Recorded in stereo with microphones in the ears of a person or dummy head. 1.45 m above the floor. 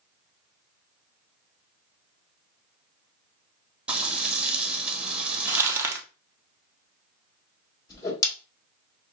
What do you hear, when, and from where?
3.9 s frying: 5° right (ahead or behind), 1.0 m
5.5 s crumpling: 15° right (ahead or behind), 0.6 m
7.9 s a whoosh: 25° left (ahead or behind), 1.7 m